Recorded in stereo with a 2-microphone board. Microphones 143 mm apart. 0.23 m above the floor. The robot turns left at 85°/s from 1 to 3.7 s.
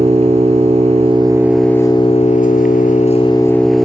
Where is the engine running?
130° right, 1.8 m; by 3.8 s straight ahead, 1.8 m.